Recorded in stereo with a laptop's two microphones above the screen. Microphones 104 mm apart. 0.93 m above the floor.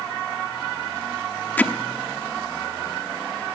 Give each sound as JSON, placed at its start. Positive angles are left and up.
{"t": 1.6, "sound": "hammering", "side_deg": 15, "distance_m": 0.8}